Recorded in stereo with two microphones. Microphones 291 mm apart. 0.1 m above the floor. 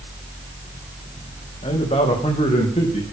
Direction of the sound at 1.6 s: 20° left (ahead or behind).